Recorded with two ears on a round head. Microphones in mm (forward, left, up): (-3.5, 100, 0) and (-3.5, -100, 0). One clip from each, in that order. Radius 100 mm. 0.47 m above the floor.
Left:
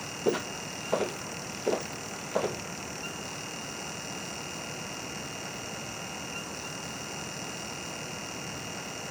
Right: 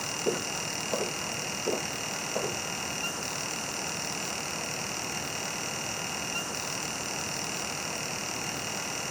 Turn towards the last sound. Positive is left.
turn(degrees=70)  # may be behind; listen again after turning